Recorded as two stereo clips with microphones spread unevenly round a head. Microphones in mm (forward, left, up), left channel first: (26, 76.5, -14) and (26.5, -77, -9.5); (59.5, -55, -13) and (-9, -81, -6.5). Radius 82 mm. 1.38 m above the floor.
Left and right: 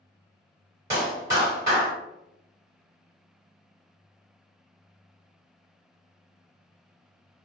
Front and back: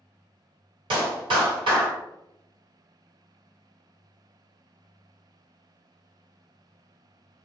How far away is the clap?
About 1.3 m.